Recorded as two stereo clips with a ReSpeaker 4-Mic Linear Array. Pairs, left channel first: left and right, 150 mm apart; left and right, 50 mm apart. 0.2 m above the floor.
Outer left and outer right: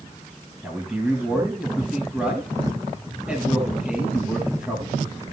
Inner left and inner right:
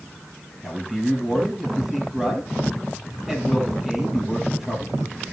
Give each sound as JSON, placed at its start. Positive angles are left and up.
{"t": 0.6, "sound": "a man speaking", "side_deg": -5, "distance_m": 5.0}